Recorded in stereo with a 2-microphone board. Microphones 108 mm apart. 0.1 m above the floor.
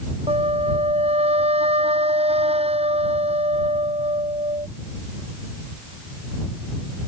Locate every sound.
0.3 s a flute: 70° right (ahead or behind)